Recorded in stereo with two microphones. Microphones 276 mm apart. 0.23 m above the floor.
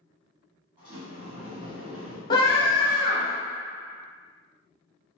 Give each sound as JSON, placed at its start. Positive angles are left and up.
{"t": 0.8, "sound": "a sliding door", "side_deg": -20, "distance_m": 1.8}
{"t": 2.3, "sound": "a scream", "side_deg": 15, "distance_m": 1.0}